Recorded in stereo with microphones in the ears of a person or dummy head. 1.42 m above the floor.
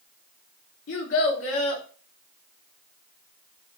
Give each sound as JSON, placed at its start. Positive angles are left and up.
{"t": 0.9, "sound": "a child speaking", "side_deg": 70, "distance_m": 0.9}